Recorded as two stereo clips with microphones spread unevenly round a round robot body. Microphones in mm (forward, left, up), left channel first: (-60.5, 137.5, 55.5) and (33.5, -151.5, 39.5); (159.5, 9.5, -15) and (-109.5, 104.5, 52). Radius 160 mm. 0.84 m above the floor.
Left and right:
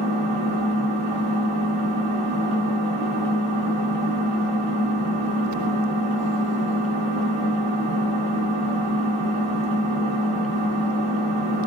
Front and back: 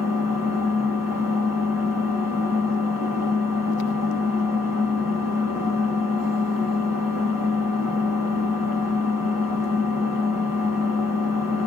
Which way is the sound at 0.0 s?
140° right.